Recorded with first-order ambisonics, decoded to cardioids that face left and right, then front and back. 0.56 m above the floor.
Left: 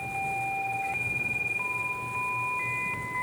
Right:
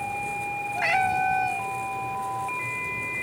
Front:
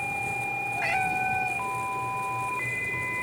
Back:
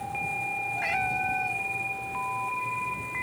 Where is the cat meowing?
85° right.